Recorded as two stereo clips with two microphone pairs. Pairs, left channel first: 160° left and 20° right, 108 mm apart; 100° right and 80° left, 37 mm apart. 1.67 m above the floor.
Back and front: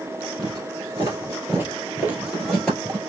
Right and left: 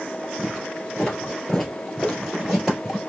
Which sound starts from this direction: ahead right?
Footsteps, at 0.4 s.